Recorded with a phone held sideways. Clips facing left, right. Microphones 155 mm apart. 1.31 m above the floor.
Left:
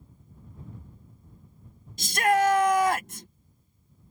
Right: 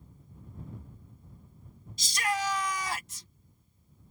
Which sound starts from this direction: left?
A shout, at 2.0 s.